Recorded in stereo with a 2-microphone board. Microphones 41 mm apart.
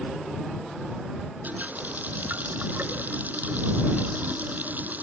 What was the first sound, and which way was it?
A running tap, 45° right (ahead or behind).